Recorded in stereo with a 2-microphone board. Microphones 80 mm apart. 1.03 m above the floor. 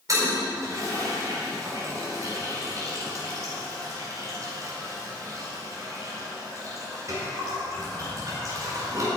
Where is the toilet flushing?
40° right (ahead or behind), 4 m.